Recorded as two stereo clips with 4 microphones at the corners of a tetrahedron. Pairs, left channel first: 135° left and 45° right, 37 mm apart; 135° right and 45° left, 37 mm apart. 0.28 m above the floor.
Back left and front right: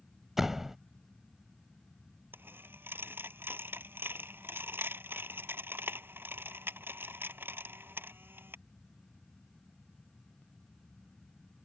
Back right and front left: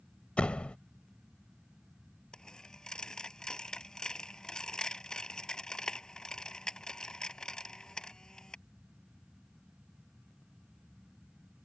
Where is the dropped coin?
60° right.